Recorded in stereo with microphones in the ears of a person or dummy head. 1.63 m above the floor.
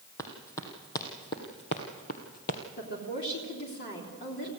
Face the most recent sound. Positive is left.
turn(degrees=50)  # may be behind; listen again after turning